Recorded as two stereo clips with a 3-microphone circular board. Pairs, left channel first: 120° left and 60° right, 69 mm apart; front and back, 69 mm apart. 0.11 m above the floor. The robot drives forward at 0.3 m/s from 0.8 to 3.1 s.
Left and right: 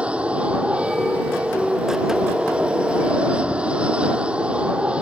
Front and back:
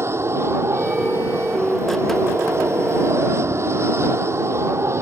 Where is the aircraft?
130° right; by 5.0 s 135° right.